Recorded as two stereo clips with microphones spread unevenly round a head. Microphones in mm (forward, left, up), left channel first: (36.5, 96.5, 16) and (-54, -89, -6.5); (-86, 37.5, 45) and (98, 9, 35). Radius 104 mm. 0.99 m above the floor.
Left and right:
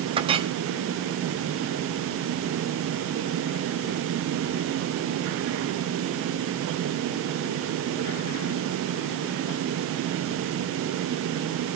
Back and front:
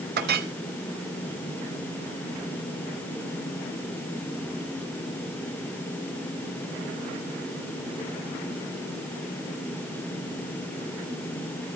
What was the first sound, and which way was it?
A clink, 50° right.